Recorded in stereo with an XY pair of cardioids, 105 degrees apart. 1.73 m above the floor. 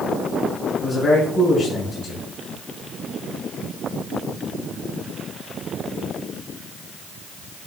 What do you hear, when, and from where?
0.8 s a man speaking: 60° left, 4 m